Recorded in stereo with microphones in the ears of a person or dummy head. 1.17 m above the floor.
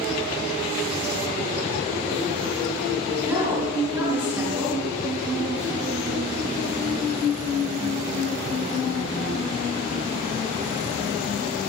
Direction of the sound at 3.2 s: 15° right (ahead or behind).